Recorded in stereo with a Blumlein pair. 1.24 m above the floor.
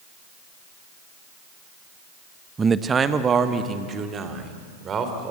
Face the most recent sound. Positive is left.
turn(degrees=-25)